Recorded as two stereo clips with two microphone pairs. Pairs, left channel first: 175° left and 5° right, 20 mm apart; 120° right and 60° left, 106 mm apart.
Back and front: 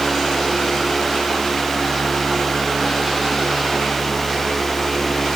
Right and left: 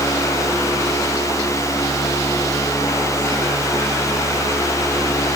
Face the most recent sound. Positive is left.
No sound to turn to.